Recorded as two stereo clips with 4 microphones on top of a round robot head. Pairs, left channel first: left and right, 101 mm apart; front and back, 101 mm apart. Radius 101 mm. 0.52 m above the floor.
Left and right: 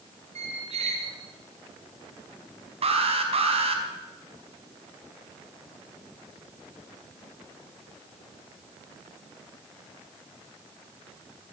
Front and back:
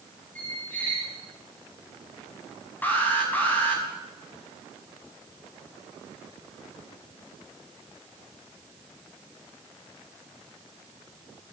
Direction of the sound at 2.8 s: 75° right.